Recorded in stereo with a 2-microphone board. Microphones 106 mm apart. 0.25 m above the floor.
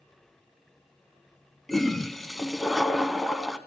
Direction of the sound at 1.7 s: Centre (ahead or behind).